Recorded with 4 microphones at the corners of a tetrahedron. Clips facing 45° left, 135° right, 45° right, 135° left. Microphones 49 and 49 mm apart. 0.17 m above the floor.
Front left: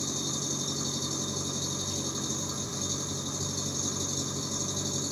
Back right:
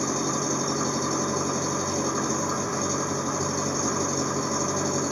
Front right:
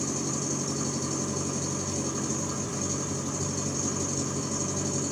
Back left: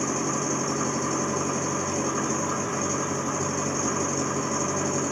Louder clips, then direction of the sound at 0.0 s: Back right 9 dB, back left 5 dB; 175° right.